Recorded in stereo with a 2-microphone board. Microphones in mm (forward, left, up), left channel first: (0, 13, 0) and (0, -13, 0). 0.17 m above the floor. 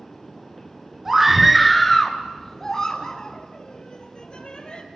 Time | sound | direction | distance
1.1 | a scream | 10° right (ahead or behind) | 1.9 m